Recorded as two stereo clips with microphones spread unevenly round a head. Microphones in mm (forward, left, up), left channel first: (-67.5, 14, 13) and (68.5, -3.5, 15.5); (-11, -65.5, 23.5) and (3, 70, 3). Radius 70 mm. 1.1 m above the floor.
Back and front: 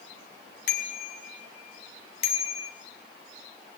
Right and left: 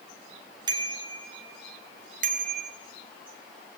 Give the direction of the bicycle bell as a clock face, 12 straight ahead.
7 o'clock.